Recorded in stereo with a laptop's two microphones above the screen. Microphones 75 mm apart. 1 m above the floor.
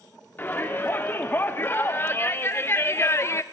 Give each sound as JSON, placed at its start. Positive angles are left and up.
{"t": 0.4, "sound": "a shout", "side_deg": 25, "distance_m": 2.0}